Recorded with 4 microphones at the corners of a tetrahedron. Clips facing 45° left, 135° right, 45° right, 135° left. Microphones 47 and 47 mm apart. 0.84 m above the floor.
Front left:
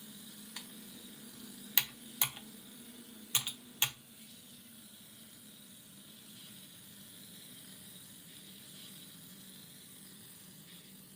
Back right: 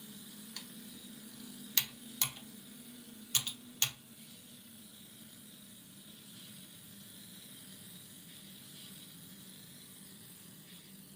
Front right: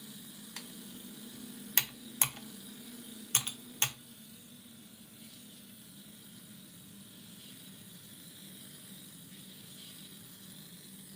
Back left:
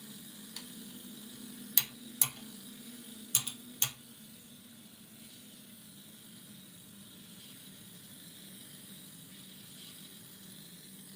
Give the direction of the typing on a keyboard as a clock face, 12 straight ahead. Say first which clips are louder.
Front left 2 dB, front right 1 dB; 1 o'clock.